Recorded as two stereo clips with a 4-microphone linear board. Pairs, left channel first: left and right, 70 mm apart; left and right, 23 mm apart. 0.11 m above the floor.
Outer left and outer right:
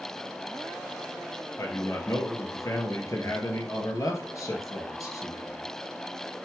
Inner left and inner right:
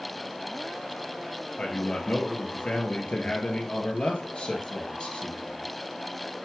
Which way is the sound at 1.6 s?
50° left (ahead or behind).